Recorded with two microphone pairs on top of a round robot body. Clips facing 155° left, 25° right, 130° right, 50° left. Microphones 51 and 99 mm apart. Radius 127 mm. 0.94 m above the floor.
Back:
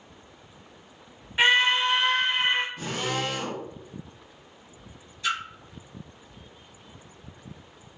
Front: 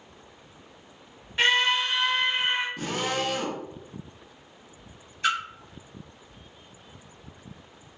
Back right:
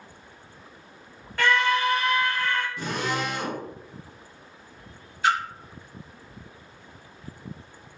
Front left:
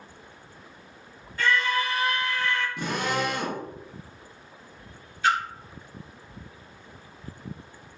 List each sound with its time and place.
1.4 s a scream: 120° right, 0.7 m; by 2.7 s 175° right, 0.9 m
2.8 s a drill: 10° left, 0.8 m
5.2 s a splash: 70° right, 1.1 m